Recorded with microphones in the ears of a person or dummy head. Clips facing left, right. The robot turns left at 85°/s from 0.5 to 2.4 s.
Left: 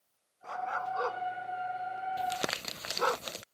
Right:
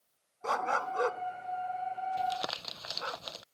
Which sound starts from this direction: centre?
Crumpling, at 2.2 s.